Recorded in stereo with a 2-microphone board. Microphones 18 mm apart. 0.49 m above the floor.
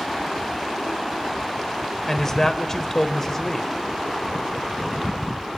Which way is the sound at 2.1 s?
25° left (ahead or behind).